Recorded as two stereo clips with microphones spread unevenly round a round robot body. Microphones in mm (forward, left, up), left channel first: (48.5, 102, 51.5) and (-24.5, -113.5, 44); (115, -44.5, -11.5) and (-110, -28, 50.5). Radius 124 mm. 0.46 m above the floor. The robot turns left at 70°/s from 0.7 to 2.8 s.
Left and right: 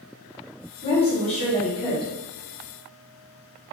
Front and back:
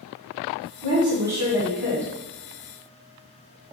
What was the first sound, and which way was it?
A woman speaking, 110° left.